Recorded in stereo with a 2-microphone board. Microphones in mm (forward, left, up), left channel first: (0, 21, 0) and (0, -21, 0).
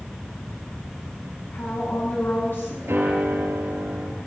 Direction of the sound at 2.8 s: 70° right (ahead or behind).